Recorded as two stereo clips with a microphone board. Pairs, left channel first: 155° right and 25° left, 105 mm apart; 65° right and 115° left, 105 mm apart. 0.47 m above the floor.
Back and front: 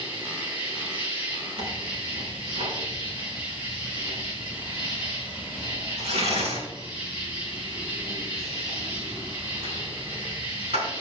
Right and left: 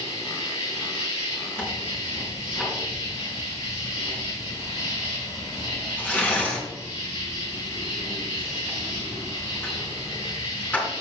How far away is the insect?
About 5 m.